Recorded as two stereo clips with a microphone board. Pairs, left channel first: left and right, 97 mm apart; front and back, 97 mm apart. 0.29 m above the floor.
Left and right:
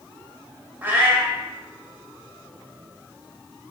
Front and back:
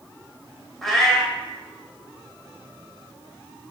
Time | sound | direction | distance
0.8 | a cat meowing | 80° right | 0.6 m